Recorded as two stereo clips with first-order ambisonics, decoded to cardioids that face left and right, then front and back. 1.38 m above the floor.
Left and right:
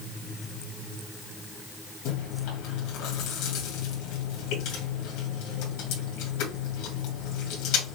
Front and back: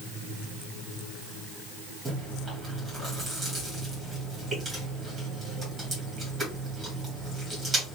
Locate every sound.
2.0 s chewing: 100° left, 2.5 m